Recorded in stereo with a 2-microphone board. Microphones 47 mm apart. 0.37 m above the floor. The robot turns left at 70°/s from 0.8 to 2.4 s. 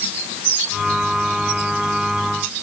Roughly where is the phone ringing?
No phone ringing in this recording.